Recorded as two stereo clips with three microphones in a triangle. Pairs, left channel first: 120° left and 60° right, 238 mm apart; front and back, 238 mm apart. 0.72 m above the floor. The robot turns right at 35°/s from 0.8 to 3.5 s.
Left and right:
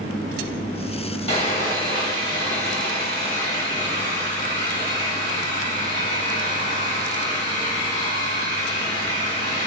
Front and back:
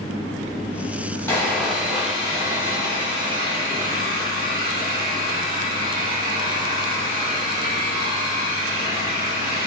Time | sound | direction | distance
1.3 | sawing | 70° left | 1.4 m